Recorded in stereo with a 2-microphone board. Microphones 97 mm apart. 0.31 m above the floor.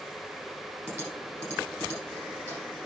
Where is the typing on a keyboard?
30° left (ahead or behind), 8.5 m.